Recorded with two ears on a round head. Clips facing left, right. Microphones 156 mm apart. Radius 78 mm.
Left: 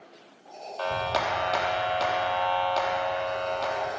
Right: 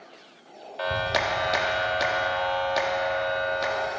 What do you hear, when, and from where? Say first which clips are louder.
0.8 s a clap: right 1 dB; 15° right (ahead or behind), 0.9 m